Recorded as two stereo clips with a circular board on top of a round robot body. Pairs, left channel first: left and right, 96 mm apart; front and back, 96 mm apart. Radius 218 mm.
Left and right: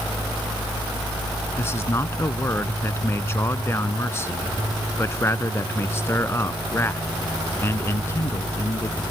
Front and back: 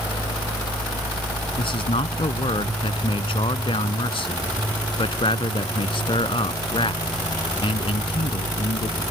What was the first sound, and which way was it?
A man speaking, 25° left.